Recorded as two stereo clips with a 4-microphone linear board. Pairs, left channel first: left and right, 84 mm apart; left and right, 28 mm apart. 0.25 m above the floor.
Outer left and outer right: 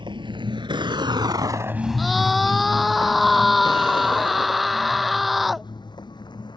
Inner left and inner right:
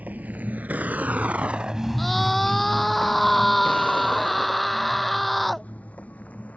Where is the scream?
Centre (ahead or behind).